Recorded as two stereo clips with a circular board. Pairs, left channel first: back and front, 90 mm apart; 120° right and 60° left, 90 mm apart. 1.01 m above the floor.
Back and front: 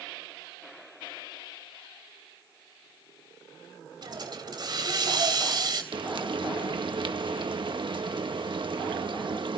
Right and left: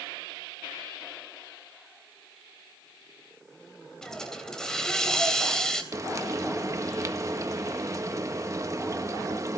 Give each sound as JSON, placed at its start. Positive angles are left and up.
{"t": 4.0, "sound": "a hiss", "azimuth_deg": -35, "distance_m": 3.0}
{"t": 5.9, "sound": "frying", "azimuth_deg": 10, "distance_m": 1.3}